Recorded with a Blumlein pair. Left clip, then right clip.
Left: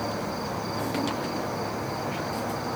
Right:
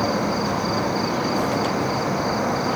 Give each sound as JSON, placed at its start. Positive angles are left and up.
{"t": 0.0, "sound": "an insect", "azimuth_deg": -30, "distance_m": 1.0}